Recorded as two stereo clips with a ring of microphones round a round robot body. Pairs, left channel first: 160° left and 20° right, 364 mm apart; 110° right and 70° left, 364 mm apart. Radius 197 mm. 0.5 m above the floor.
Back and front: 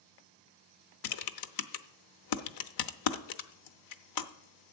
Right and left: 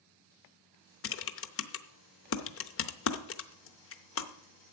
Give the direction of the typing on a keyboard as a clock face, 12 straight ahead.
6 o'clock.